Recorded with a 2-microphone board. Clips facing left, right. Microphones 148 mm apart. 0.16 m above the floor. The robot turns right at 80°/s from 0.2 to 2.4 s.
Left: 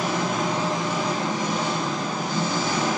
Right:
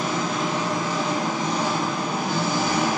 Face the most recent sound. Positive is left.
turn(degrees=-70)